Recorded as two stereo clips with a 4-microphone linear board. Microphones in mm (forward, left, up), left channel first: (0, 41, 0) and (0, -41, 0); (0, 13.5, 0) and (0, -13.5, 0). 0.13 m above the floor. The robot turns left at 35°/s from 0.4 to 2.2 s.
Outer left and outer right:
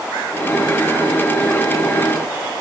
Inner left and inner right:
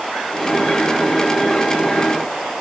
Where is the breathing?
I don't hear breathing.